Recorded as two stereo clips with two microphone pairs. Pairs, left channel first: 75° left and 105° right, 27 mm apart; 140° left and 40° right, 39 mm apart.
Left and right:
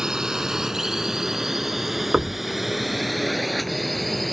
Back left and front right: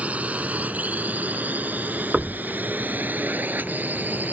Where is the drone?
55° right; by 4.3 s 10° right.